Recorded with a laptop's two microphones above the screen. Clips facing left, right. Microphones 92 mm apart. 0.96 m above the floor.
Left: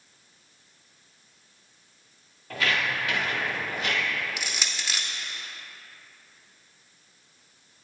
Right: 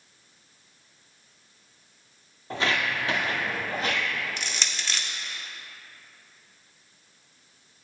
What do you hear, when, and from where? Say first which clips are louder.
2.5 s footsteps: right 1 dB; 25° right (ahead or behind), 1.0 m; by 4.0 s 35° right (ahead or behind), 1.5 m
4.4 s crushing: even; 10° left (ahead or behind), 0.6 m